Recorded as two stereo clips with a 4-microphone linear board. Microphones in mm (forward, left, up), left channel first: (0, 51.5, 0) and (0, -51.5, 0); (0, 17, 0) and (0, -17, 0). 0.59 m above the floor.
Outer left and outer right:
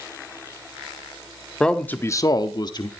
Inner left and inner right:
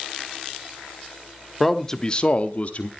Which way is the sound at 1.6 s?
5° left (ahead or behind).